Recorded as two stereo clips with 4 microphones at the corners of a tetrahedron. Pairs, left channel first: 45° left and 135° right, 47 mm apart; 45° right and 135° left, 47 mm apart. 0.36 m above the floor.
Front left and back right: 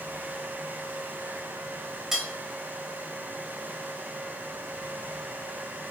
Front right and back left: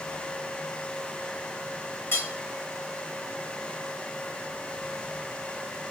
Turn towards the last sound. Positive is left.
turn(degrees=-55)